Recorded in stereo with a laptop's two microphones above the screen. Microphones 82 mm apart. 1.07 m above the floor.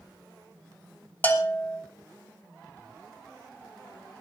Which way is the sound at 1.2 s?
25° left (ahead or behind).